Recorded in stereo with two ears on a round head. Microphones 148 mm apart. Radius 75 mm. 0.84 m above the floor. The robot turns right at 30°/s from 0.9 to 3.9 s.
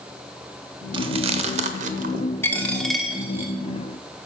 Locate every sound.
0.9 s chewing: 30° right (ahead or behind), 0.6 m; by 2.2 s 50° right (ahead or behind), 0.6 m
2.4 s a dropped coin: 165° left, 0.9 m; by 3.5 s 165° right, 0.9 m